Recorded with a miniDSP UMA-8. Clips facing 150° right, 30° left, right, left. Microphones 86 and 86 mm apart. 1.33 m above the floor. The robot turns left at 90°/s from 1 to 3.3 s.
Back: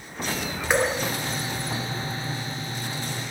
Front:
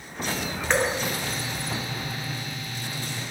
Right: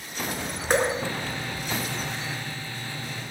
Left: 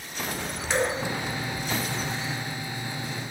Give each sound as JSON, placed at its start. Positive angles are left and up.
{"t": 0.7, "sound": "dripping", "azimuth_deg": -70, "distance_m": 0.5}